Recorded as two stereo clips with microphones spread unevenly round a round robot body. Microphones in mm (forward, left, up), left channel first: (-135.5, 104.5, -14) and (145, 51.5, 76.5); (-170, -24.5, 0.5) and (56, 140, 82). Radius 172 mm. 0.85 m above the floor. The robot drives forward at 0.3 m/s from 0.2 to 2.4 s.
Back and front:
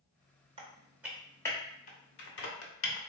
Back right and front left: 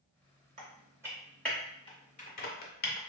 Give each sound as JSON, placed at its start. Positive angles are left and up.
{"t": 0.6, "sound": "typing on a keyboard", "azimuth_deg": 10, "distance_m": 0.6}